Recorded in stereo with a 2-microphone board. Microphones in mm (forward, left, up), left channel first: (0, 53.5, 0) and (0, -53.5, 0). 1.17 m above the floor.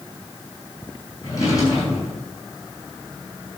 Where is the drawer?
35° left (ahead or behind), 5.5 m.